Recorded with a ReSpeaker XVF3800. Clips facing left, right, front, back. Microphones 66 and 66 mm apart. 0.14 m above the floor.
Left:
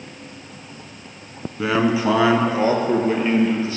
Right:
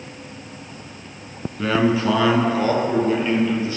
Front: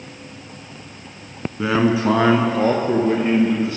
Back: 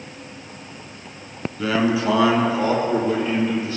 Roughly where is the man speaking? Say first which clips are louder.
Even, front 2 dB; ahead left.